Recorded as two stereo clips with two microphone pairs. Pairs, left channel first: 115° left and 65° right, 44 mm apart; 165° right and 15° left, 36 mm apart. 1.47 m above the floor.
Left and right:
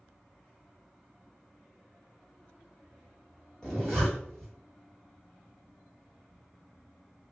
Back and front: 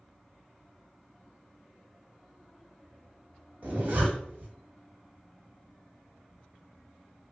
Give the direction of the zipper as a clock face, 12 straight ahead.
11 o'clock.